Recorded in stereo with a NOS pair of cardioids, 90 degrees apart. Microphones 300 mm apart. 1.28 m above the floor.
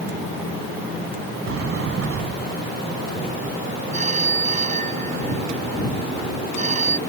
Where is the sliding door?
55° right.